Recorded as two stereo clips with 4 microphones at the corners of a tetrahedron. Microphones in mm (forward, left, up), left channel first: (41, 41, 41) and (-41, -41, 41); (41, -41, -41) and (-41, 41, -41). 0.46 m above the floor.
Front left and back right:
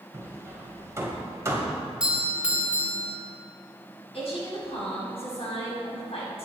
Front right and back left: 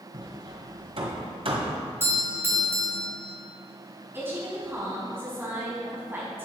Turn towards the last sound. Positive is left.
turn(degrees=65)